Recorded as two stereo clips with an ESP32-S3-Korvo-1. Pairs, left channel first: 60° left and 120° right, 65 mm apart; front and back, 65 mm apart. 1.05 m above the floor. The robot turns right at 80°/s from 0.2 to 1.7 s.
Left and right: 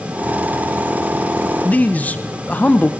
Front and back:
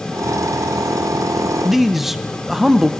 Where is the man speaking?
90° left, 0.8 m; by 2.9 s 95° left, 0.8 m.